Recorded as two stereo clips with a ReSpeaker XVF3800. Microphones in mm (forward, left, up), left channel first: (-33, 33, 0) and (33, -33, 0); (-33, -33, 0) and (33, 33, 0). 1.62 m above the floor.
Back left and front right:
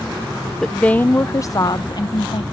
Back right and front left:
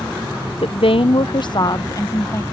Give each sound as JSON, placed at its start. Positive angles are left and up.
{"t": 0.6, "sound": "a woman speaking", "azimuth_deg": -140}